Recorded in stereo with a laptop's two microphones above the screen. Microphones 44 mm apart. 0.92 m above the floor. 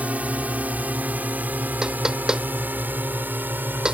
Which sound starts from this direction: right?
A drone, at 0.0 s.